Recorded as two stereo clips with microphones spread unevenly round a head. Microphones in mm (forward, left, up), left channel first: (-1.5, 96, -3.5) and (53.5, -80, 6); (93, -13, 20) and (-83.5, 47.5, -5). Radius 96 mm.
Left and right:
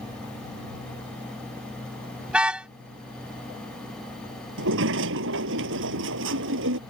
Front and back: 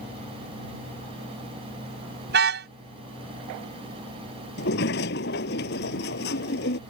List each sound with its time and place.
2.3 s a car horn: 155° right
4.6 s a sliding door: 55° right